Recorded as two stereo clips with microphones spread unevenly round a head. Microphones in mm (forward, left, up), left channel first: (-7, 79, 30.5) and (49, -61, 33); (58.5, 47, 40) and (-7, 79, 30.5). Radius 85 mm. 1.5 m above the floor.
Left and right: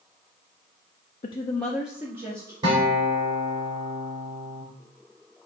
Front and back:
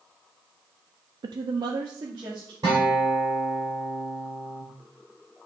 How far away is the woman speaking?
About 0.5 m.